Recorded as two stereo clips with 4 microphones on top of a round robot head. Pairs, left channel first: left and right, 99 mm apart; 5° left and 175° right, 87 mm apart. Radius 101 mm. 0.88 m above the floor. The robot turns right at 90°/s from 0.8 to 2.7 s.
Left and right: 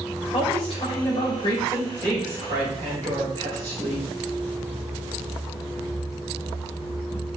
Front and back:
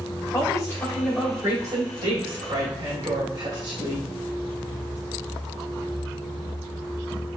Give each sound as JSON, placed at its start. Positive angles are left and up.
{"t": 0.3, "sound": "a woman speaking", "azimuth_deg": 70, "distance_m": 3.5}